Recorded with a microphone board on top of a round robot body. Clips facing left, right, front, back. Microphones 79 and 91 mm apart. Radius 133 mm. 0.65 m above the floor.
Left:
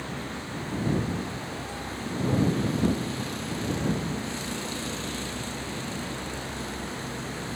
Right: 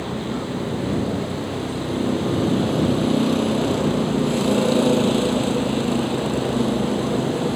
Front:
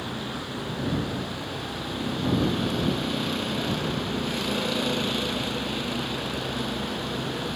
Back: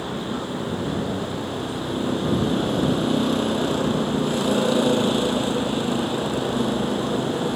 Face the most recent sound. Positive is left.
turn(degrees=-125)